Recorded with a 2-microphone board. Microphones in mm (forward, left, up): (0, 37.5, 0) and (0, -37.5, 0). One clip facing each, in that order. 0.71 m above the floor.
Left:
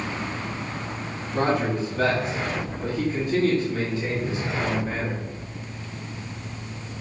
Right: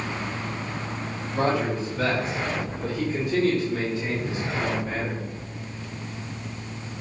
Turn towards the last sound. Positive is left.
turn(degrees=15)  # may be behind; listen again after turning